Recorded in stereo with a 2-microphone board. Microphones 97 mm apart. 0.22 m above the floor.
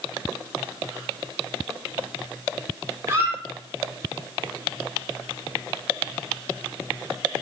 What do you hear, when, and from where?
3.1 s a squeak: 25° right (ahead or behind), 1.0 m